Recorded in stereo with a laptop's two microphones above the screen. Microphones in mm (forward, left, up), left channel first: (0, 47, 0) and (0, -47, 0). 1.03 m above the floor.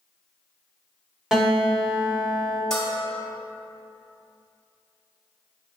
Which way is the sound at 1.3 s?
5° right (ahead or behind).